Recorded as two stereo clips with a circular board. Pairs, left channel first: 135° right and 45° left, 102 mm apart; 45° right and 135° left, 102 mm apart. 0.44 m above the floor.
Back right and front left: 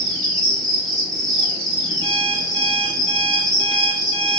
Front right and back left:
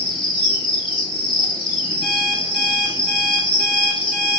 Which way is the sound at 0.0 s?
5° right.